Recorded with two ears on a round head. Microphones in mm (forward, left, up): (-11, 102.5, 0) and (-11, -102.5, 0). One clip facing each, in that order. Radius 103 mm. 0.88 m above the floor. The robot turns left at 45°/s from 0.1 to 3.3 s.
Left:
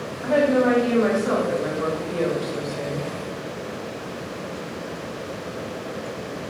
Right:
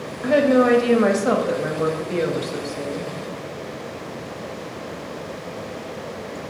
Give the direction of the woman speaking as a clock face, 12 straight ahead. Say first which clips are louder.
Right 3 dB; 2 o'clock.